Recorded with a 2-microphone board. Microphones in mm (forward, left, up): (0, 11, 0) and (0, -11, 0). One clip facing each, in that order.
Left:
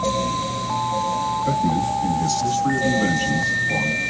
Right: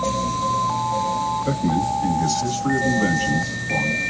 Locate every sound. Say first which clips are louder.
1.4 s a man speaking: left 1 dB; 20° right (ahead or behind), 1.5 m; by 4.0 s 10° left (ahead or behind), 1.5 m